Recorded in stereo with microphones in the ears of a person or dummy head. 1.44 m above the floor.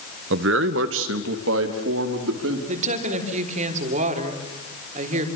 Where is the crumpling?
No crumpling in this recording.